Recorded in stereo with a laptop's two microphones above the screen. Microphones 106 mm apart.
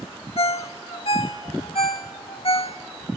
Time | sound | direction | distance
0.4 | a ringtone | 60° left (ahead or behind) | 1.0 m